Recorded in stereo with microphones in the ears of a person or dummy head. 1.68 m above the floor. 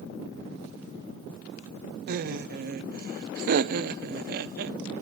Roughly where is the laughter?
Right.